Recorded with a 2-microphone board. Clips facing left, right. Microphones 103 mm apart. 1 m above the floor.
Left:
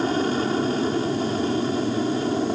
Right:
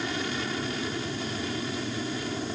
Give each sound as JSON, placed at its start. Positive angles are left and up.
{"t": 0.0, "sound": "an aircraft", "side_deg": 40}